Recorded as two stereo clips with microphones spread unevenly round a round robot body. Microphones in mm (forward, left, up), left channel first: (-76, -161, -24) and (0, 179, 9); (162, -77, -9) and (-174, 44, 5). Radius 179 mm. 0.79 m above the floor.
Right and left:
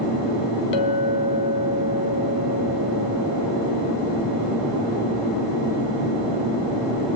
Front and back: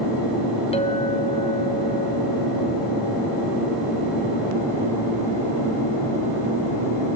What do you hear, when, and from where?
0.7 s a clink: 95° right, 2.5 m